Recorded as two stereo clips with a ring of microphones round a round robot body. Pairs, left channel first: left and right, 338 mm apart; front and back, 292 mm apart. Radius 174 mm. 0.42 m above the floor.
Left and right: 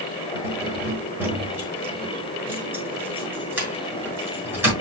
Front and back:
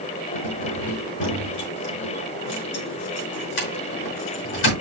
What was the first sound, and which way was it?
Keys jangling, 5° right.